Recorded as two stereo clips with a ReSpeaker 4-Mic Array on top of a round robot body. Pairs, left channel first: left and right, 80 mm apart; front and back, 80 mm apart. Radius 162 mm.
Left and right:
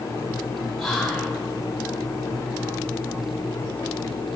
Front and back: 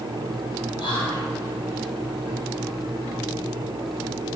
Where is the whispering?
5° left, 2.5 m.